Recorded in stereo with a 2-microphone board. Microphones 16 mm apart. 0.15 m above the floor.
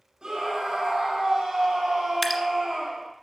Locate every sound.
0.2 s a scream: 40° right (ahead or behind), 6 m
2.2 s dripping: 5° left (ahead or behind), 1.5 m